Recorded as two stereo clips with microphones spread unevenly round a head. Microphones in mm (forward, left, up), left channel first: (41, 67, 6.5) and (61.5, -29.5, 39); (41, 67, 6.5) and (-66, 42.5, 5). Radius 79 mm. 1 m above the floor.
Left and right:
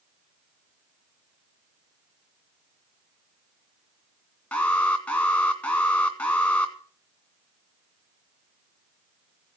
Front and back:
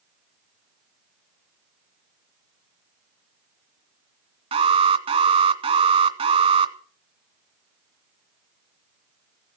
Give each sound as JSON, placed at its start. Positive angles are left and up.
{"t": 4.5, "sound": "an alarm", "azimuth_deg": 165, "distance_m": 2.0}